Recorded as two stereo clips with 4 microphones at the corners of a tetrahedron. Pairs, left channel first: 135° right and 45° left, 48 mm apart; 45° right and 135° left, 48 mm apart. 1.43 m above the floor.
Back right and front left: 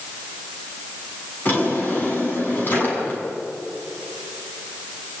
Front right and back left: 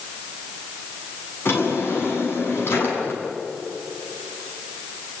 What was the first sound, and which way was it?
A drawer, 85° right.